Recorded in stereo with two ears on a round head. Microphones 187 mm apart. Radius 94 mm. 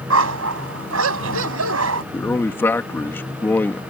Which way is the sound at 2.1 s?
10° left (ahead or behind).